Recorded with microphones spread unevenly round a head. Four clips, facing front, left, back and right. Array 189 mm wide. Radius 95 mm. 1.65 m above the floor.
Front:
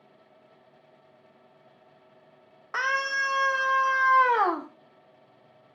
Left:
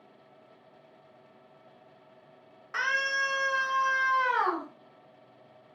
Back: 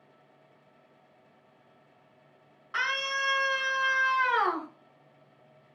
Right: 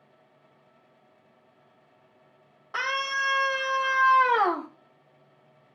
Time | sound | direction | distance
2.7 | a scream | 25° right | 4 m